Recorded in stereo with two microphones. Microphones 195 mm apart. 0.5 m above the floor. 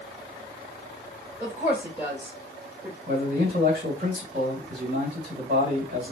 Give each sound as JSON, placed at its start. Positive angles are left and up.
{"t": 1.4, "sound": "a woman speaking", "side_deg": -10, "distance_m": 2.0}
{"t": 3.1, "sound": "a man speaking", "side_deg": -50, "distance_m": 2.5}